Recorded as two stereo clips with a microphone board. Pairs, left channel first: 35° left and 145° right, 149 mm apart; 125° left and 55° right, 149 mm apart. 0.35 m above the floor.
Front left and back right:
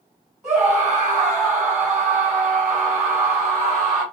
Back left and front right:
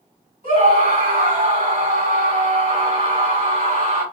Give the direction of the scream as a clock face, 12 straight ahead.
2 o'clock.